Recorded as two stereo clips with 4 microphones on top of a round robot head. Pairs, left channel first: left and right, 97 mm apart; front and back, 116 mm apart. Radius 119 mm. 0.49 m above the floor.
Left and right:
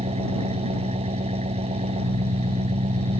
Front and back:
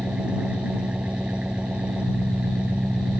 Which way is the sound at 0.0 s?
100° right.